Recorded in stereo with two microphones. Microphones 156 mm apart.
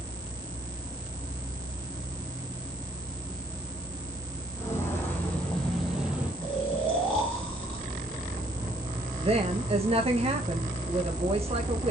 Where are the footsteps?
15° left (ahead or behind), 3 m; by 6.3 s 10° right (ahead or behind), 2 m.